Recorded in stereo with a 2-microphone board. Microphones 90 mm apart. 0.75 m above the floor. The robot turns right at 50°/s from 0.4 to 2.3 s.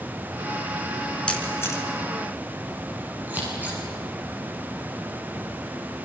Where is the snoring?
No snoring in this recording.